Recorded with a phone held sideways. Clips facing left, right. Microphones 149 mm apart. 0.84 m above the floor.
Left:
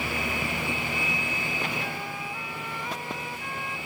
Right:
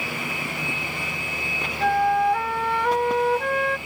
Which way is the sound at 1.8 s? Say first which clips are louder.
Right 16 dB; 70° right (ahead or behind).